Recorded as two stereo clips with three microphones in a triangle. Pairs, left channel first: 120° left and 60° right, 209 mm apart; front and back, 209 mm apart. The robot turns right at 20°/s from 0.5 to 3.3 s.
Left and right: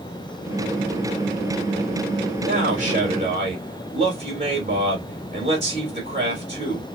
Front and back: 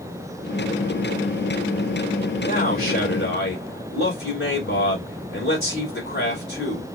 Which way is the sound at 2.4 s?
20° right.